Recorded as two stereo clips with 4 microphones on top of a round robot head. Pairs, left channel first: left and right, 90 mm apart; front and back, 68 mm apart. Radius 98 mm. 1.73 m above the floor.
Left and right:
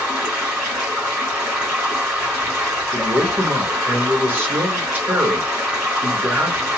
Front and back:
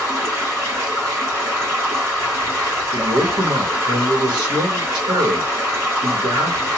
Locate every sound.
0.0 s running water: 160° right, 1.7 m
2.9 s a man speaking: 155° right, 1.0 m